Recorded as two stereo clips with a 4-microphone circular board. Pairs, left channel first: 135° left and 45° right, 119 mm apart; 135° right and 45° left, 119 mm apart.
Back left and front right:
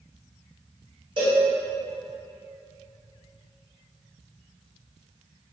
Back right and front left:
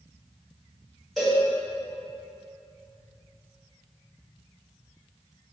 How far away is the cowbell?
About 1.5 m.